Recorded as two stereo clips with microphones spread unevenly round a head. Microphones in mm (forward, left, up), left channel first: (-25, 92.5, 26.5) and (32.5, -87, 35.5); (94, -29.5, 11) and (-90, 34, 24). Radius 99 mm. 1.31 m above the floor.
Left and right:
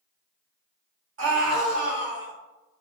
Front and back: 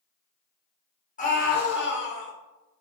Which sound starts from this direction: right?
A scream, at 1.2 s.